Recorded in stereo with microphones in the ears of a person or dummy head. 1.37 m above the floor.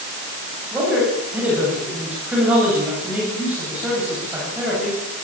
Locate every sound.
0.7 s a man speaking: 5° right (ahead or behind), 8 m